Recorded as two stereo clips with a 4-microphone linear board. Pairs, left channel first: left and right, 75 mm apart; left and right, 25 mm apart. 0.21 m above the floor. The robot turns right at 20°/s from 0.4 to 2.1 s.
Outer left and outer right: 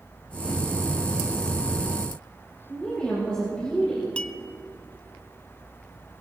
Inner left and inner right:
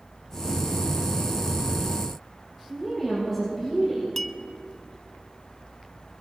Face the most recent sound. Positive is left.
turn(degrees=15)  # may be behind; listen again after turning